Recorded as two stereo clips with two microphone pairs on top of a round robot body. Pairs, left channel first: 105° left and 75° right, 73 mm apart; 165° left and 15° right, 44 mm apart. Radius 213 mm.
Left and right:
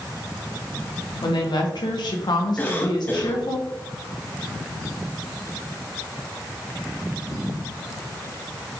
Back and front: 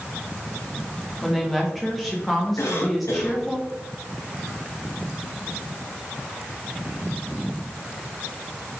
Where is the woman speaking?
75° left, 1.2 m.